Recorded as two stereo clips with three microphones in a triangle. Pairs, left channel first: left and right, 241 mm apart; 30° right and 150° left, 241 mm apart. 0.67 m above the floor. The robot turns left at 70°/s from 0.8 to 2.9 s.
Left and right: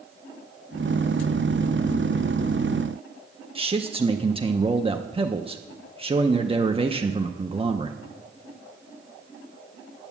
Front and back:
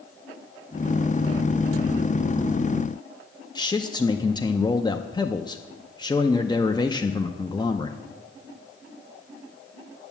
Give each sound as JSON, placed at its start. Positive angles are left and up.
{"t": 3.5, "sound": "a man speaking", "azimuth_deg": -75, "distance_m": 0.6}